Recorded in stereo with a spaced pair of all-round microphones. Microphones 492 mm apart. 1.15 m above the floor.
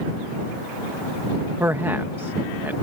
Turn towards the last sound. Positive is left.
turn(degrees=-5)  # may be behind; listen again after turning